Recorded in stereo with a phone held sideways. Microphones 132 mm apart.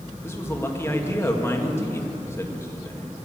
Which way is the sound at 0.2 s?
20° left (ahead or behind).